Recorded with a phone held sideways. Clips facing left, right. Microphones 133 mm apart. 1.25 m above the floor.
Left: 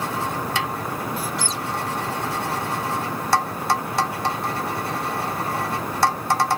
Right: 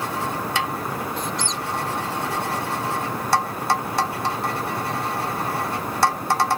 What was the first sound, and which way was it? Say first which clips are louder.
A squeak: even; 5° left (ahead or behind).